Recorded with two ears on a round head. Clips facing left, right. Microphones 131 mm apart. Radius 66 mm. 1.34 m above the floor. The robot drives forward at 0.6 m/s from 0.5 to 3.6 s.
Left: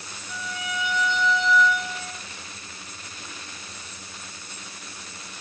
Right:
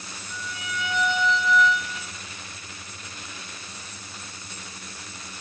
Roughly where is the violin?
Left.